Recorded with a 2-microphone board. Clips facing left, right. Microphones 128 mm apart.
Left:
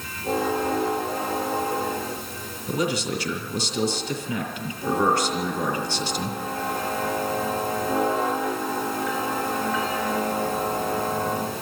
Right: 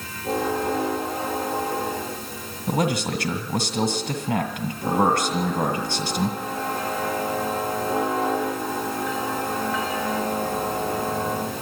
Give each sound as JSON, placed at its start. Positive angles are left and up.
{"t": 2.7, "sound": "a man speaking", "side_deg": -70, "distance_m": 2.0}